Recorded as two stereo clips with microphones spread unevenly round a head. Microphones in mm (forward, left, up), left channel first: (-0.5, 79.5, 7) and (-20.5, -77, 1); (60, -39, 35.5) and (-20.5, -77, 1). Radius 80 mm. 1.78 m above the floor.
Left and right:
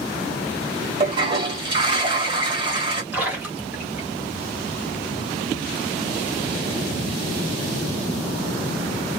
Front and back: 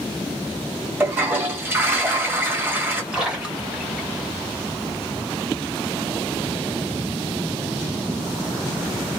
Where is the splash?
25° right, 1.1 m.